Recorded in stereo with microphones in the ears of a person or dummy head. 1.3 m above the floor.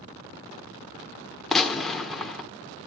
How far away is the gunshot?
About 1.3 m.